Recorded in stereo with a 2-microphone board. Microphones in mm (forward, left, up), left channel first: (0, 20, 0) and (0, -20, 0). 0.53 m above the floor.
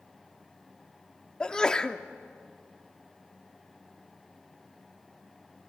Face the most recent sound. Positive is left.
turn(degrees=20)  # may be behind; listen again after turning